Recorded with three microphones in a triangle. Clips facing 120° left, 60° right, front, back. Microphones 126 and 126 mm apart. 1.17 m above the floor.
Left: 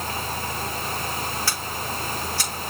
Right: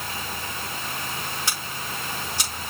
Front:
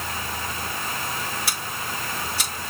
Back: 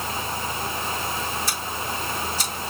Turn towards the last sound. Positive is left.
turn(degrees=10)